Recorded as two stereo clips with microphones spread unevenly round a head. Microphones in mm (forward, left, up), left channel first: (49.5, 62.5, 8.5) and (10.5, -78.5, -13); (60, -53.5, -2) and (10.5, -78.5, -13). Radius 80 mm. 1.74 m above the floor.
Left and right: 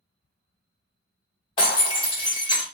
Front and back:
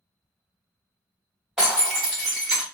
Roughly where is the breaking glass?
Behind left.